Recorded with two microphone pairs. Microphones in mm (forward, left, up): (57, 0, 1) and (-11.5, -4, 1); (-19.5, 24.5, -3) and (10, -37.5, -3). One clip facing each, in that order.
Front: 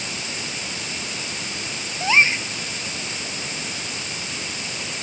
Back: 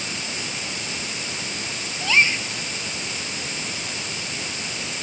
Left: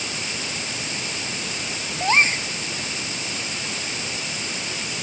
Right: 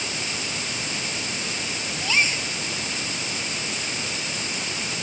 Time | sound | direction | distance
2.0 | a gasp | 70° left | ?